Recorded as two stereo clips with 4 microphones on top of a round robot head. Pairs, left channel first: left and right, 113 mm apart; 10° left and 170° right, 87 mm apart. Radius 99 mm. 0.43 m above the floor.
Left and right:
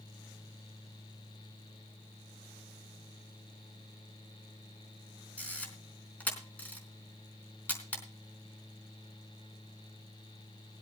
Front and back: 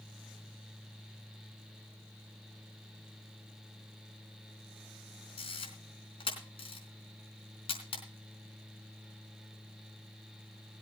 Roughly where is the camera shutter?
Ahead.